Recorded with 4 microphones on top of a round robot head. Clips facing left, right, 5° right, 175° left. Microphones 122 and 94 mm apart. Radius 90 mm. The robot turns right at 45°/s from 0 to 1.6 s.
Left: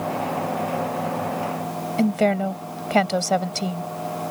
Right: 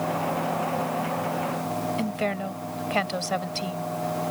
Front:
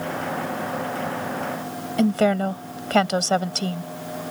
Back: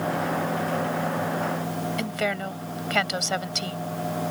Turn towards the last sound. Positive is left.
turn(degrees=45)